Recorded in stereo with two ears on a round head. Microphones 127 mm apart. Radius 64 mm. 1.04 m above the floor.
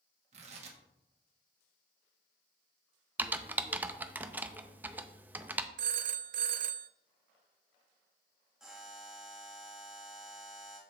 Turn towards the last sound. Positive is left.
turn(degrees=-5)  # may be behind; listen again after turning